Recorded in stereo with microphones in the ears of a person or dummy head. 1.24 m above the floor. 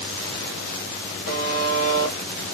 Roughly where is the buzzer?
Left.